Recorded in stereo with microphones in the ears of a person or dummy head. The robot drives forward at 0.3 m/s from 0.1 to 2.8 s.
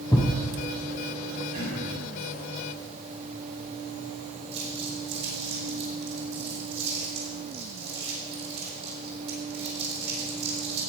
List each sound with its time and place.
0.1 s a thud: 20° left (ahead or behind), 2 m
1.5 s throat clearing: 50° right (ahead or behind), 3 m
4.5 s crumpling: 55° right (ahead or behind), 3 m